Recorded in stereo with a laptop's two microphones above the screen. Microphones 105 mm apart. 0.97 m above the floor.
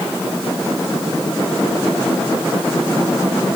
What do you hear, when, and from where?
Only background noise.